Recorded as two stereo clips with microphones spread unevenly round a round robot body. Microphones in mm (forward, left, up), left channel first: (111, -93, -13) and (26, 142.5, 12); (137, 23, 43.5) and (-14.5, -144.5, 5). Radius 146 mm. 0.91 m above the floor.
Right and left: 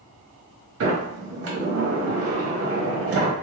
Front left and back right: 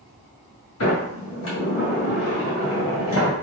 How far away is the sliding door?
About 1.3 m.